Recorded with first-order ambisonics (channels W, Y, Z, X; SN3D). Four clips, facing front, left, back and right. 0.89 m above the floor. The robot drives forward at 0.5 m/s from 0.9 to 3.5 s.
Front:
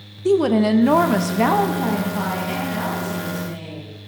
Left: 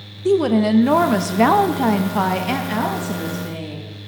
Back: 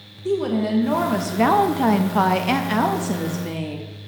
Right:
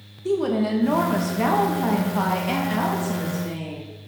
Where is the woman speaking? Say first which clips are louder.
Left 6 dB, front 5 dB; 45° left, 0.5 m; by 3.9 s 165° left, 1.1 m.